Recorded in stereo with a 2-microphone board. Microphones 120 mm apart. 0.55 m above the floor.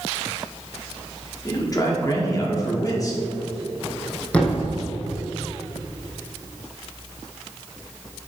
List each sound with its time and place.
1.4 s a man speaking: 30° left (ahead or behind), 1.3 m
4.3 s a thud: 10° left (ahead or behind), 1.8 m